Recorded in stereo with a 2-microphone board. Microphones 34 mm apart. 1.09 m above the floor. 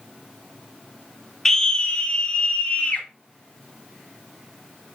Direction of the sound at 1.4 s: 15° left (ahead or behind).